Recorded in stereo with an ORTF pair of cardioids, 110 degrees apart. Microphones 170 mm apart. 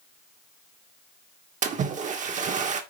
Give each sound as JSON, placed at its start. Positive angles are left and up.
{"t": 1.6, "sound": "a splash", "azimuth_deg": -45, "distance_m": 2.0}